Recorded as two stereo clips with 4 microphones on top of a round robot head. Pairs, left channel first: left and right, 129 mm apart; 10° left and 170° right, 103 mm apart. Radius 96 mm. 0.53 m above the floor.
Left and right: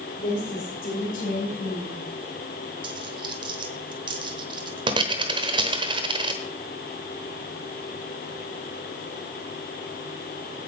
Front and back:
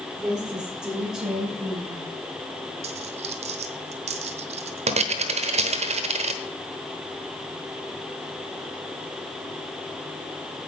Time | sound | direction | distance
0.2 | a woman speaking | 110° left | 8 m
2.8 | a dropped coin | 150° right | 0.9 m